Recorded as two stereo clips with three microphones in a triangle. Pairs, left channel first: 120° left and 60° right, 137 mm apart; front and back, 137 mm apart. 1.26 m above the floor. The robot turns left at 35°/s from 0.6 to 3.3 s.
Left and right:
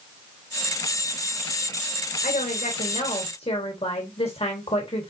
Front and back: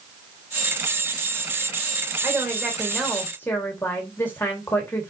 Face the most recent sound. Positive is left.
turn(degrees=75)